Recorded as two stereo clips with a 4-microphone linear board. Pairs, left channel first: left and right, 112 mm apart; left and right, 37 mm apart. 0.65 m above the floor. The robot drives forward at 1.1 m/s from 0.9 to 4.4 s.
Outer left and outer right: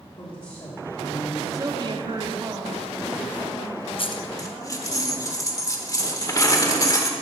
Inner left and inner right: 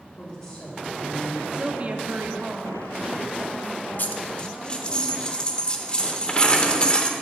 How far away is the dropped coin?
About 0.6 m.